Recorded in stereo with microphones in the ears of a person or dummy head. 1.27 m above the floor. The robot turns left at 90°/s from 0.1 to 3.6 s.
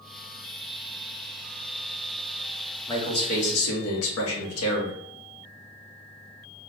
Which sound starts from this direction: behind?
A man speaking, at 2.9 s.